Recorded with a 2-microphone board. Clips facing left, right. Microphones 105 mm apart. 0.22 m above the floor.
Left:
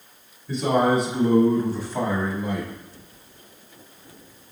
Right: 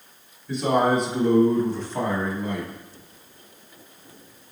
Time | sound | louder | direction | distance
0.5 | a man speaking | even | 5° left (ahead or behind) | 1.0 m